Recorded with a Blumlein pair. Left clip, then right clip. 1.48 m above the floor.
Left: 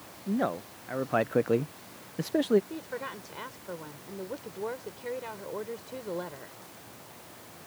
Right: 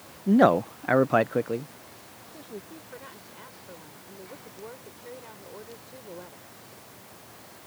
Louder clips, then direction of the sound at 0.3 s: Right 11 dB; 65° right.